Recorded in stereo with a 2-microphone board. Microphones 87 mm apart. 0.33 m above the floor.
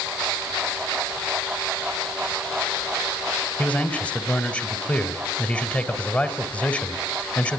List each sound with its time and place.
3.6 s a man speaking: 15° left (ahead or behind), 1.6 m